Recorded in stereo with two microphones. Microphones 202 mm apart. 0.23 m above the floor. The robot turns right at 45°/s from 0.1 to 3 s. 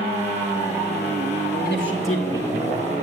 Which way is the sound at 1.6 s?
20° right.